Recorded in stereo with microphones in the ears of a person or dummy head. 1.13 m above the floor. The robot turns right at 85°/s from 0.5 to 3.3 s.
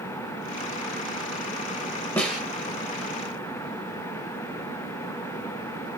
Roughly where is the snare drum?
Centre.